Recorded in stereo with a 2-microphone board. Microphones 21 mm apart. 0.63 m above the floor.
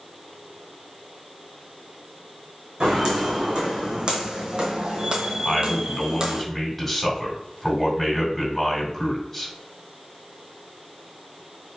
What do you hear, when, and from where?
2.8 s footsteps: 45° right (ahead or behind), 1.9 m; by 6.5 s 35° right (ahead or behind), 0.9 m
5.5 s a man speaking: 5° left (ahead or behind), 2 m